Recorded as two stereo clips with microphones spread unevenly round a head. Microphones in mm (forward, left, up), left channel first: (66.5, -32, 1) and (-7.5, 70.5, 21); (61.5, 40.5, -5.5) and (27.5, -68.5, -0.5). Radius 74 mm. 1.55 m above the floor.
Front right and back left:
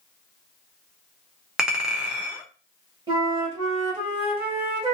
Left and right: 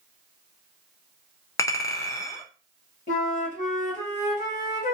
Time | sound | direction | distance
1.6 | a clink | 75° left | 0.6 m
3.1 | a flute | 75° left | 1.4 m